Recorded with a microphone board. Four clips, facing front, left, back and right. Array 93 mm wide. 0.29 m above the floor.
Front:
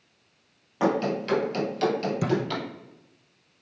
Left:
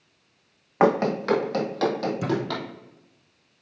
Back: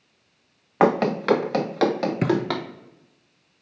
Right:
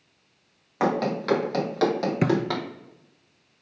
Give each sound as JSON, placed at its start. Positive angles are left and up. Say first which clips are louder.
{"t": 0.8, "sound": "running footsteps", "louder": "left 4 dB, back 5 dB", "azimuth_deg": 150, "distance_m": 1.3}
{"t": 2.2, "sound": "a thud", "louder": "right 5 dB, back 4 dB", "azimuth_deg": -130, "distance_m": 1.0}